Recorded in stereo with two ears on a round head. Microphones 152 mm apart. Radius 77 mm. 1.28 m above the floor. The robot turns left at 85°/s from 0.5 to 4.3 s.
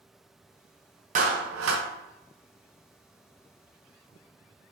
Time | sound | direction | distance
1.1 | a clap | 40° right | 0.7 m